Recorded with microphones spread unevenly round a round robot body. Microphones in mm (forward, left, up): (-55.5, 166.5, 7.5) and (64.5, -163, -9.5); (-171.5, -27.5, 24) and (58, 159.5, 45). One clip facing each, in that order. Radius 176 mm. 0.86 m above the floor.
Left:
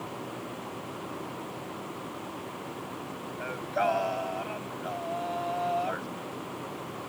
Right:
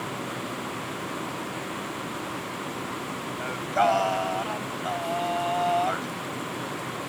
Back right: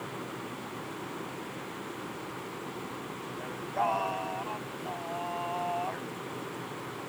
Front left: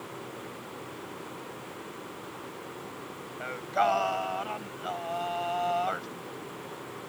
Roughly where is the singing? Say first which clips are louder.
Right 4 dB, front left 5 dB; ahead.